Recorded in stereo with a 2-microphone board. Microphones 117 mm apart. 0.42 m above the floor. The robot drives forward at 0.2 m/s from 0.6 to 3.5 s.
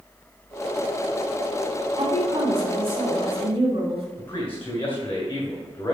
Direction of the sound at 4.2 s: 50° left (ahead or behind).